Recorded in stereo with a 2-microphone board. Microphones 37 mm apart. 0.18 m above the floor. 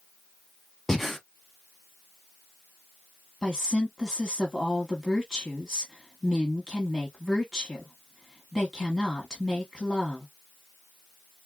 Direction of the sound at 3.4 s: 15° left (ahead or behind).